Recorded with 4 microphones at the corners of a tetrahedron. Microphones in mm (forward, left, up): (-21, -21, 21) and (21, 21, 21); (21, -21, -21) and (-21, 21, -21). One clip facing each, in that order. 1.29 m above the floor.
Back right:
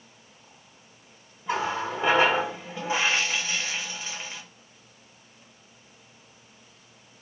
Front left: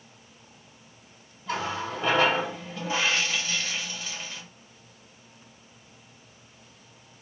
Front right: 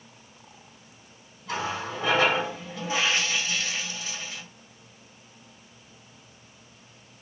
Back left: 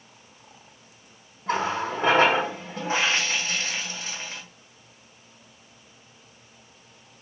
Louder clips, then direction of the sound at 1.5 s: Back right 3 dB, back left 5 dB; 160° left.